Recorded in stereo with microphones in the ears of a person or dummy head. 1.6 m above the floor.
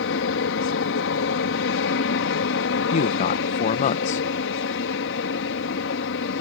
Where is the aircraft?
65° left (ahead or behind).